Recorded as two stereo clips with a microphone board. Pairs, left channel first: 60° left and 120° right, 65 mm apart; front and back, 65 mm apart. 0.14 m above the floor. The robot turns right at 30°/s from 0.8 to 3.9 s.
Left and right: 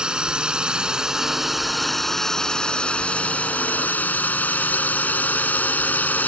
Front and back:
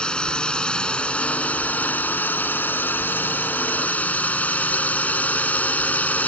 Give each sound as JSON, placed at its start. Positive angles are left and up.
{"t": 0.0, "sound": "a drone", "azimuth_deg": -60}